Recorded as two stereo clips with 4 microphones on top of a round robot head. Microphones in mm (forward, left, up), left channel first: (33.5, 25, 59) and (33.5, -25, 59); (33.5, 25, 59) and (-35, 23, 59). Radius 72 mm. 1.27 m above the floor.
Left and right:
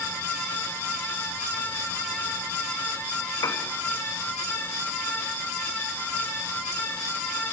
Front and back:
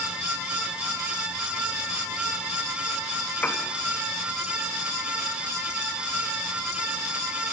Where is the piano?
75° left, 2.5 m.